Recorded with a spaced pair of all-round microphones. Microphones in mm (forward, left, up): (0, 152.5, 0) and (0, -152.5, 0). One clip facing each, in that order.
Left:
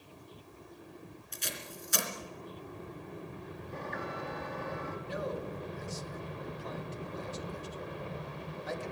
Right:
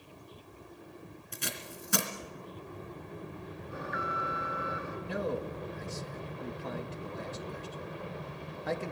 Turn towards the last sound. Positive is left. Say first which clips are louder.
# right 5 dB
turn(degrees=-70)  # may be behind; listen again after turning